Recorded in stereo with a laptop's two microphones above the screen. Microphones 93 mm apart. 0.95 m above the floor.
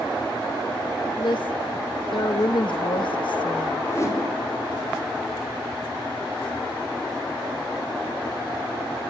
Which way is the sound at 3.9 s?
35° left (ahead or behind).